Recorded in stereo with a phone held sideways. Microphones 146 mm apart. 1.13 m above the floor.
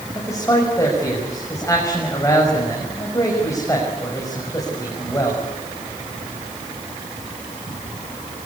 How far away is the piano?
No piano in this recording.